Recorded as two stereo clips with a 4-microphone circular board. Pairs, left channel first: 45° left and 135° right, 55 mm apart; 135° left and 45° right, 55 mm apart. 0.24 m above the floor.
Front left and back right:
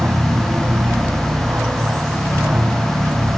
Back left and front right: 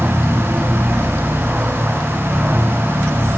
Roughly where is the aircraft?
Right.